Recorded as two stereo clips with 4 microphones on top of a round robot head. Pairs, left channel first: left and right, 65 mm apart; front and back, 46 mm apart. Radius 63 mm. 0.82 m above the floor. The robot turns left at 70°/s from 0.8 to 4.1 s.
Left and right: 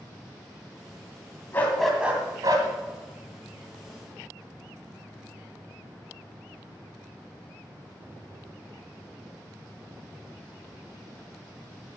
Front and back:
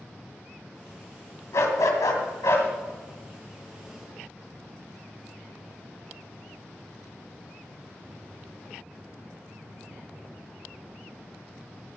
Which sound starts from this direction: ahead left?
A dog barking, at 1.5 s.